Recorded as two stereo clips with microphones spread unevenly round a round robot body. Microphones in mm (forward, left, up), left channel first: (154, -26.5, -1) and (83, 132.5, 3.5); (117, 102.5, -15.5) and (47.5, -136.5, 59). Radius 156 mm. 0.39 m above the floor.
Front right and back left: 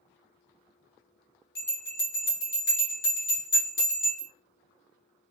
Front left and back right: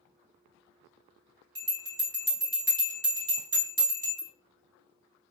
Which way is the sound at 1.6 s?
75° right.